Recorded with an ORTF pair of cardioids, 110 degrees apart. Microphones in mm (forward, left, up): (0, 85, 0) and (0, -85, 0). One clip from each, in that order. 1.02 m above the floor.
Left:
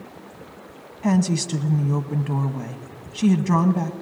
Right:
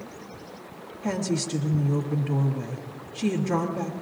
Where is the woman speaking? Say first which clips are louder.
Left 4 dB; 65° left, 1.0 m.